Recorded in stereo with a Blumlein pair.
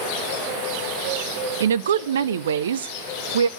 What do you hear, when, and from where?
1.6 s a woman speaking: 65° right, 0.7 m